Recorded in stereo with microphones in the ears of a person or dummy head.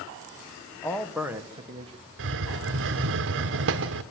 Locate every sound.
0.8 s a man speaking: 10° left (ahead or behind), 1.4 m; by 2.1 s 35° right (ahead or behind), 1.9 m
2.2 s a hiss: 60° right (ahead or behind), 1.1 m